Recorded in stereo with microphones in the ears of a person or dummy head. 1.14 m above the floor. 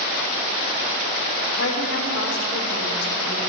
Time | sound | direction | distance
1.6 | a woman speaking | 75° left (ahead or behind) | 6.5 m